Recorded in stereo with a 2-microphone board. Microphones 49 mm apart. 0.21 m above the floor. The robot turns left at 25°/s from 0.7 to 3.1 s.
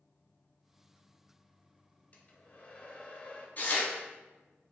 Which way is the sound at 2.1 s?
35° left (ahead or behind).